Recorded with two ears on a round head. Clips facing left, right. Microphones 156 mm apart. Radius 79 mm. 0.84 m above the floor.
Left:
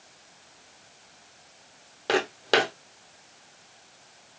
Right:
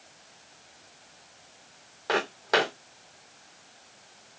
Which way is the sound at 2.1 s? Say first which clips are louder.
Left 2 dB; 30° left (ahead or behind).